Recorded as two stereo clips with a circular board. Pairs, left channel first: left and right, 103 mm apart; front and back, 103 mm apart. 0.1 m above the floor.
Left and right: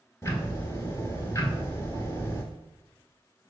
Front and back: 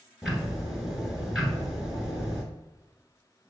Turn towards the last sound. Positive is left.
turn(degrees=100)